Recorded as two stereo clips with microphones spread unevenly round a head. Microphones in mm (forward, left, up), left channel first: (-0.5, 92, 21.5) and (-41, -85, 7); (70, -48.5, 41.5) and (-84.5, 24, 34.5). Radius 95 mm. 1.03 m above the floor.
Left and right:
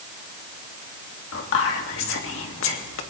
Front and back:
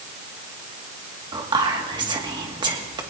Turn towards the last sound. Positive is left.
turn(degrees=90)